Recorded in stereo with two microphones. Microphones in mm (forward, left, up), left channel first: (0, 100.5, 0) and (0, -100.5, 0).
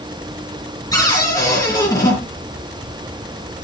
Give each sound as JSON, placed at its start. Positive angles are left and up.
{"t": 0.9, "sound": "a cupboard door", "side_deg": 15, "distance_m": 4.0}